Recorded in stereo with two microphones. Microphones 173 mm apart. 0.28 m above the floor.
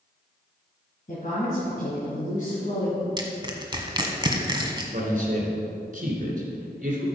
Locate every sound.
1.1 s a woman speaking: 50° left (ahead or behind), 3 m
3.2 s crushing: 25° right (ahead or behind), 1.3 m
4.9 s a man speaking: 50° right (ahead or behind), 2.5 m